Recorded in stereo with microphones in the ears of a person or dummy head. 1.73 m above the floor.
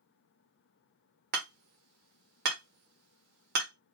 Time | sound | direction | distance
1.3 | hammering | 60° right (ahead or behind) | 1.2 m